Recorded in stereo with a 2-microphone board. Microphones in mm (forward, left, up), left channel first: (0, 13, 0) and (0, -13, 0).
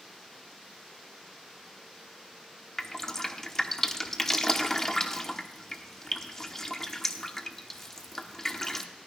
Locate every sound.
2.8 s dripping: 20° left (ahead or behind), 1.0 m